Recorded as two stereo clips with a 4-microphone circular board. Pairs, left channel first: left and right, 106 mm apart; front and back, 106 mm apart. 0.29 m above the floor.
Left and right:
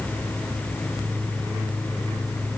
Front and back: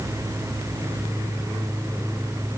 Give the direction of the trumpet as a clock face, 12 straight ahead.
No trumpet in this recording.